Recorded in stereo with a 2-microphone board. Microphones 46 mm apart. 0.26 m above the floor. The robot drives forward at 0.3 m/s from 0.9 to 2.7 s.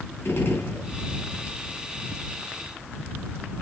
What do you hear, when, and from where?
0.2 s a gunshot: 60° left (ahead or behind), 2 m